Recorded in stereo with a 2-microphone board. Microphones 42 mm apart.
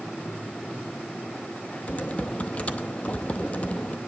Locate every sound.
1.9 s typing on a keyboard: 30° left (ahead or behind), 0.6 m